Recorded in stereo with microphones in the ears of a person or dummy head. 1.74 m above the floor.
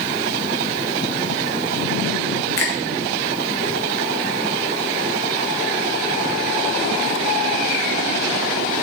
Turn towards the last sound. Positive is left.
turn(degrees=15)  # may be behind; listen again after turning